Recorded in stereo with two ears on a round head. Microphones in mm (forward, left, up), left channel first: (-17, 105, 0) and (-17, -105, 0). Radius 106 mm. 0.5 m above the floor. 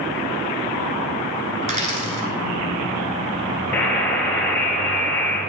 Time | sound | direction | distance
1.6 | a dropped coin | 30° right (ahead or behind) | 1.4 m
3.7 | a buzzer | 10° left (ahead or behind) | 2 m